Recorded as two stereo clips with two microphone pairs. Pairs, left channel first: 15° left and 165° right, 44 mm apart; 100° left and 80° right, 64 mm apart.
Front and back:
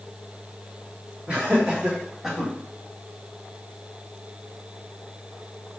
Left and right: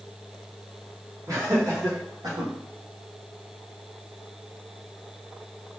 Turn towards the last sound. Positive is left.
turn(degrees=-70)